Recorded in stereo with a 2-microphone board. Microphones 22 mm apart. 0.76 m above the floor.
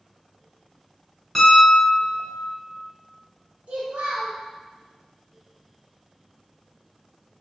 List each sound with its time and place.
1.4 s a piano: centre (ahead or behind), 0.9 m
3.7 s a child speaking: 85° right, 0.7 m